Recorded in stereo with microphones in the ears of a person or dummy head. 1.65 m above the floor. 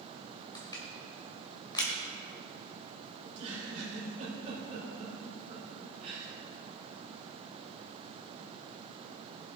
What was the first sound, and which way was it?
Crushing, 20° left (ahead or behind).